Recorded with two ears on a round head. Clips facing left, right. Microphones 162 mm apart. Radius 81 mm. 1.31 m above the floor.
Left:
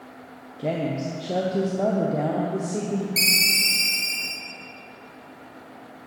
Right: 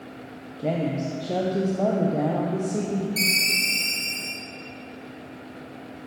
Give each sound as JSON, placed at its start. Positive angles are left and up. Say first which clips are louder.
{"t": 0.6, "sound": "a woman speaking", "louder": "even", "side_deg": 0, "distance_m": 0.5}
{"t": 3.2, "sound": "a ringtone", "louder": "right 1 dB", "side_deg": 25, "distance_m": 1.0}